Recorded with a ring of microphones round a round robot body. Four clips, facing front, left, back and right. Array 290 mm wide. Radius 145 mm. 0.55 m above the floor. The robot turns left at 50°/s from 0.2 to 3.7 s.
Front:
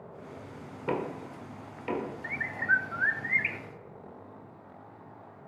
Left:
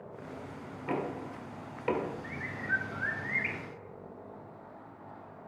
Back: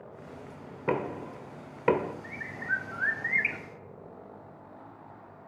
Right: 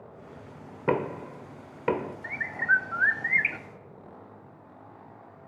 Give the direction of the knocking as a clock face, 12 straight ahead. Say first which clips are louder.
Right 7 dB, back 2 dB; 3 o'clock.